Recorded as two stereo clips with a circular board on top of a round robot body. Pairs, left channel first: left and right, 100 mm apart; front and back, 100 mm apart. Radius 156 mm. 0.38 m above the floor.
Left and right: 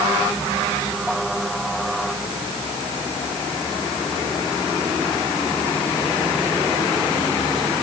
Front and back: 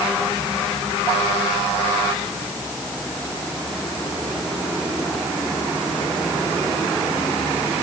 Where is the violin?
I don't hear a violin.